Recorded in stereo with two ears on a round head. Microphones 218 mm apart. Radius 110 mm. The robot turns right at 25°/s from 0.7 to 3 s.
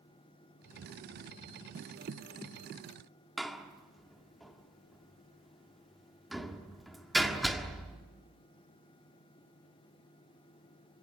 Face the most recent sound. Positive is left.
turn(degrees=0)  # may be behind; listen again after turning